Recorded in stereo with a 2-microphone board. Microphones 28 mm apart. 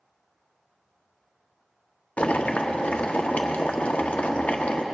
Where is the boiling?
50° left (ahead or behind), 0.7 m.